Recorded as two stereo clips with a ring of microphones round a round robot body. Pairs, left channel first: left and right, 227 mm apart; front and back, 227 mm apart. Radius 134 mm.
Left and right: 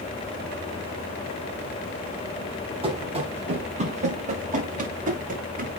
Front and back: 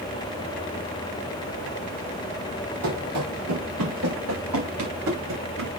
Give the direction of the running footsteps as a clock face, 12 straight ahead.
5 o'clock.